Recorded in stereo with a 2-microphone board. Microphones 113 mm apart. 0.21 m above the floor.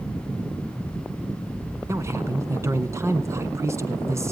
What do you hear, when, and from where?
1.9 s a man speaking: 25° right (ahead or behind), 2 m